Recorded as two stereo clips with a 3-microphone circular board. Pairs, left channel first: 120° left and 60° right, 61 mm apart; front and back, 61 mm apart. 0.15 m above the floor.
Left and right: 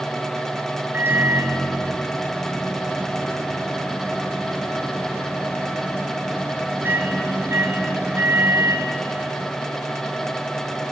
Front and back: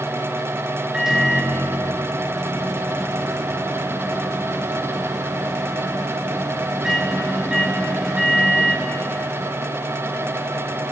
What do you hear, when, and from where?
0.9 s a microwave: 100° right, 2 m